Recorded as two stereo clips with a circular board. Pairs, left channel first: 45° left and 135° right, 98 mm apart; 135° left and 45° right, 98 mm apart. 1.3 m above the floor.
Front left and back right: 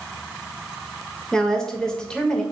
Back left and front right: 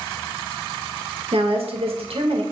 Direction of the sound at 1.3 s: 40° right.